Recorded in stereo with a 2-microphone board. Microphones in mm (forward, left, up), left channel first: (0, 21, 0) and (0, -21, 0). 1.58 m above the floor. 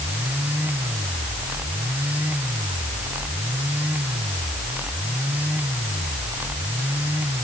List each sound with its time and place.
Only background noise.